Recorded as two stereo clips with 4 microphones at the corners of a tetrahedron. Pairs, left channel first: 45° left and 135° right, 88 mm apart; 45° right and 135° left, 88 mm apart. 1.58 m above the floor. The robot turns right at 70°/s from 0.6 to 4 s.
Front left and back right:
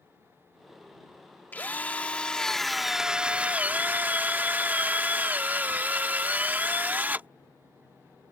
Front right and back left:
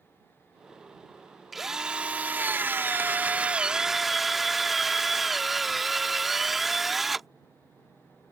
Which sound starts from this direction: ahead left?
A drill, at 1.5 s.